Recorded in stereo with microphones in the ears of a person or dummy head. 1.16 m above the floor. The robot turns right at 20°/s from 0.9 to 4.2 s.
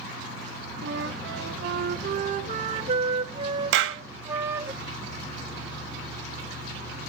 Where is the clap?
65° right (ahead or behind), 0.9 m; by 4.0 s 70° right (ahead or behind), 0.9 m.